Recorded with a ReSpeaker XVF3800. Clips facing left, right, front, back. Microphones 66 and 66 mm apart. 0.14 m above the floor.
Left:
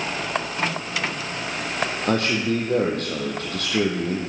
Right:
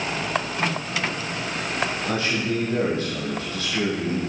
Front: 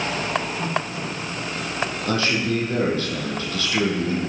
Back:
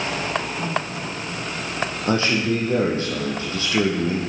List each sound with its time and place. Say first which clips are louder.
2.1 s a man speaking: left 6 dB, back 3 dB; 120° left, 4.5 m